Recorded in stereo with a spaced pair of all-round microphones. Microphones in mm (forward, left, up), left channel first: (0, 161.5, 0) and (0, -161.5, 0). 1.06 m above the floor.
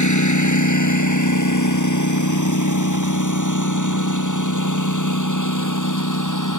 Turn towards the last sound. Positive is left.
turn(degrees=75)  # may be behind; listen again after turning